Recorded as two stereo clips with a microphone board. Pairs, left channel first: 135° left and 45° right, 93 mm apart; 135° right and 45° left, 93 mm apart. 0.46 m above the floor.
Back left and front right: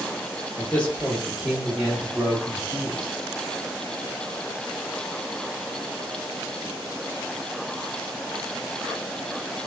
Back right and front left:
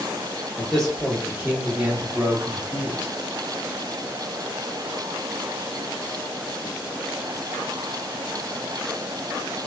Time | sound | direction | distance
0.6 | a man speaking | 160° left | 0.9 m